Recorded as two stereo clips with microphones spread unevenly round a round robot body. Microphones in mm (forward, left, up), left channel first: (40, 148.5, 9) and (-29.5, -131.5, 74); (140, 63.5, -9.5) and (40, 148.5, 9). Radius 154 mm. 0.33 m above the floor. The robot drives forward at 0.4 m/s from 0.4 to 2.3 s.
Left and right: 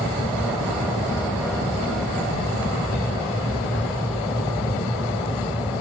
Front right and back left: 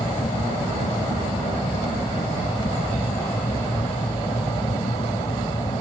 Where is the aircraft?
5° right; by 5.8 s 10° right.